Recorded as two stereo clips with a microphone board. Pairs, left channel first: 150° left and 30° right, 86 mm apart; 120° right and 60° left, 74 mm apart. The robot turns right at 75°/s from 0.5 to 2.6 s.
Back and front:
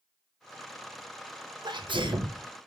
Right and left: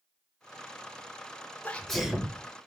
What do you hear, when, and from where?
1.6 s a sneeze: 55° right, 0.7 m; by 2.4 s 5° left, 0.7 m